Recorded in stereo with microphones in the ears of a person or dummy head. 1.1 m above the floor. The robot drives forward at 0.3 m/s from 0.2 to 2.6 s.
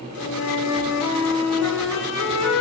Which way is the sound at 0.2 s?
80° left.